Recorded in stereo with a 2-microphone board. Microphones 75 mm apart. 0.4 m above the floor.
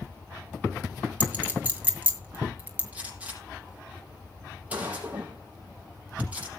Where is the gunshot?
20° right (ahead or behind), 6 m.